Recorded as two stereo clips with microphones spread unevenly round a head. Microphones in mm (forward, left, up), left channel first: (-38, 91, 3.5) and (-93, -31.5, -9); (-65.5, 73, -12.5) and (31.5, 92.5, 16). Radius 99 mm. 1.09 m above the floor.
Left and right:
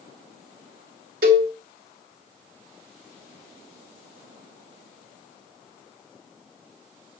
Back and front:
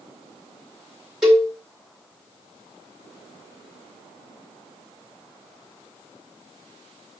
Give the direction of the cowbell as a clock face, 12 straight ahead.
2 o'clock.